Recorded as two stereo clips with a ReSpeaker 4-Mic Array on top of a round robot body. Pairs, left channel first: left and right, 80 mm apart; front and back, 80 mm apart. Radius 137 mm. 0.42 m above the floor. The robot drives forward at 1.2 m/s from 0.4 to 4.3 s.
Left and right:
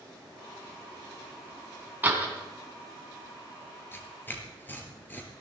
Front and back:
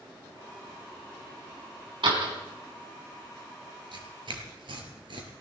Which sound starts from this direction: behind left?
Tearing paper, at 3.9 s.